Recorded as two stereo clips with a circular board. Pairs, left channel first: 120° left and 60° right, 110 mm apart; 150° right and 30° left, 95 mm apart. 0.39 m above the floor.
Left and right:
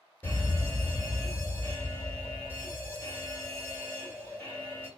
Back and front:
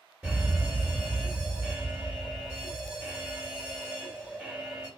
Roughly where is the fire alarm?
Left.